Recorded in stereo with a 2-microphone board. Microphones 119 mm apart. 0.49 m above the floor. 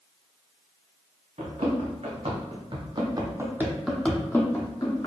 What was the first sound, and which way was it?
Running footsteps, 70° right (ahead or behind).